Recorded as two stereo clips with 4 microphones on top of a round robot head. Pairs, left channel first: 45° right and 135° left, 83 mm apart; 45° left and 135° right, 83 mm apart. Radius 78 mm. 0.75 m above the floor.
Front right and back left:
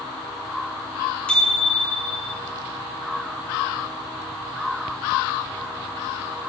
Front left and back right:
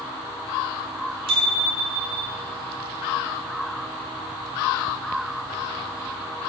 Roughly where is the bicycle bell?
Behind right.